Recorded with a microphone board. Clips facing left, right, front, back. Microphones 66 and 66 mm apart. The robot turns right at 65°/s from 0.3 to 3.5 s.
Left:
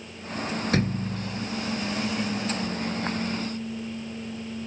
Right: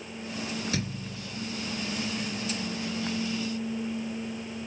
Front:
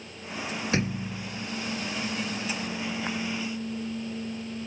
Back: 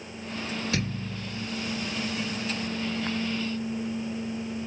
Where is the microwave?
I don't hear a microwave.